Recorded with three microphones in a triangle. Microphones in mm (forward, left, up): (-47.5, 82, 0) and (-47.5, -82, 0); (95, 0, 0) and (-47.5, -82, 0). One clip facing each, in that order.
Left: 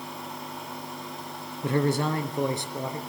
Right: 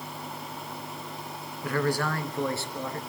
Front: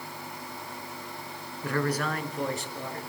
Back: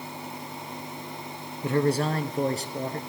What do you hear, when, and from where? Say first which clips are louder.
1.6 s a man speaking: left 3 dB, back 5 dB; 150° left, 1.9 m; by 3.0 s 165° left, 3 m